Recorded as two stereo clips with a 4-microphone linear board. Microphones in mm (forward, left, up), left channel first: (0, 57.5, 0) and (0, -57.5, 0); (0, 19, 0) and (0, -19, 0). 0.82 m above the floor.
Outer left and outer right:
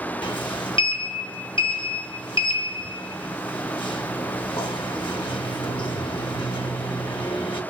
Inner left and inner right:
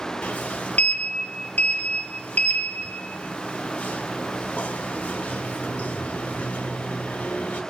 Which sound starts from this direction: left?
A sliding door, at 0.2 s.